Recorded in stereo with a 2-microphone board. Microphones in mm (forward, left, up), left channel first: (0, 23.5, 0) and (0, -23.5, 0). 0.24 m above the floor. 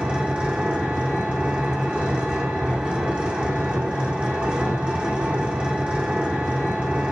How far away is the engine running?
About 3 m.